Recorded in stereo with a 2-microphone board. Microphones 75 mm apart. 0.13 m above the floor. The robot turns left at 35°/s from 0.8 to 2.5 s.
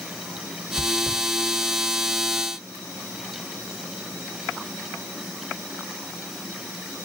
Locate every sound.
0.8 s chewing: 50° left (ahead or behind), 4 m; by 1.2 s 60° left (ahead or behind), 4 m